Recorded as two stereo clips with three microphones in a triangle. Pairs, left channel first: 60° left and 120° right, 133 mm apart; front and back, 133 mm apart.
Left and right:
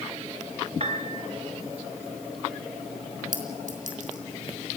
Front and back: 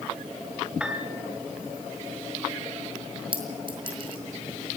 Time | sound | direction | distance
0.8 | a piano | 100° right | 2.0 m
3.3 | a clink | 130° right | 3.5 m